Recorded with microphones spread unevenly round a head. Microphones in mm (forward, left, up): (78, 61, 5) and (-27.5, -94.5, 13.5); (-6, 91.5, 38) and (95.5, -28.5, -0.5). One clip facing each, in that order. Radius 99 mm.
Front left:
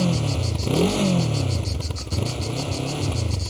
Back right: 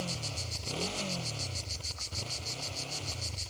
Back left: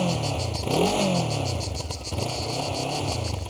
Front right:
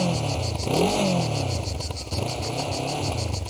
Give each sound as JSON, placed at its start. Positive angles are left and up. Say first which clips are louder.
{"t": 0.0, "sound": "a motorcycle", "louder": "front left 17 dB, front right 1 dB", "azimuth_deg": 40}